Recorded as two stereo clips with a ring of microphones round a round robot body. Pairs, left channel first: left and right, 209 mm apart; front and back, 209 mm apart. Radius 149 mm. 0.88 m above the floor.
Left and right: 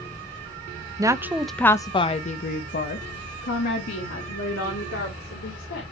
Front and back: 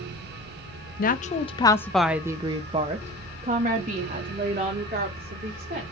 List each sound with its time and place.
1.0 s a woman speaking: 25° right, 0.9 m; by 5.8 s 135° left, 3 m